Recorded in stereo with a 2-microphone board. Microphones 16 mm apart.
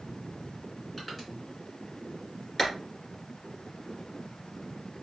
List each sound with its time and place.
1.0 s crushing: centre (ahead or behind), 2.5 m
2.6 s a clap: 10° left (ahead or behind), 1.8 m